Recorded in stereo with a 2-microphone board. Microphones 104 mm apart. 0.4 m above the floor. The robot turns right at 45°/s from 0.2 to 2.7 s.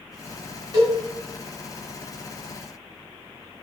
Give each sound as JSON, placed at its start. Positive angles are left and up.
{"t": 0.7, "sound": "a cowbell", "side_deg": -40, "distance_m": 3.0}